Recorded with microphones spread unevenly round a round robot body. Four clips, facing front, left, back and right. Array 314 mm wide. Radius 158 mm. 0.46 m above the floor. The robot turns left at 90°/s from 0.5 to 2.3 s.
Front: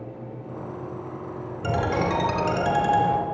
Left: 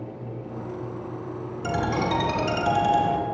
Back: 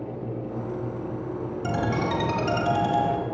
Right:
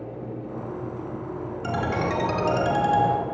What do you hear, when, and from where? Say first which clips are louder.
1.6 s a ringtone: left 1 dB, front 3 dB; 10° left, 4 m; by 3.2 s 50° right, 4 m